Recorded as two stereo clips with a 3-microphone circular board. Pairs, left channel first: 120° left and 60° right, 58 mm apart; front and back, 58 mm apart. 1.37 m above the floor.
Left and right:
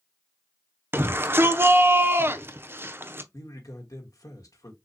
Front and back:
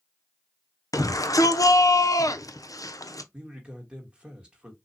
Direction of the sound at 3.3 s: 110° left.